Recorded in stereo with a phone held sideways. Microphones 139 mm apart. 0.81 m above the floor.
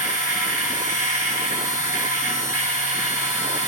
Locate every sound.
0.0 s a machine running: 25° right (ahead or behind), 9 m